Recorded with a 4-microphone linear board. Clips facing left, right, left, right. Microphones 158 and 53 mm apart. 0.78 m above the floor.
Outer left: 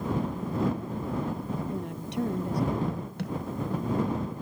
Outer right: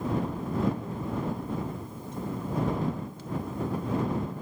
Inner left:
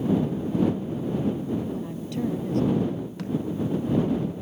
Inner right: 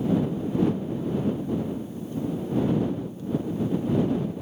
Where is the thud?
70° left (ahead or behind).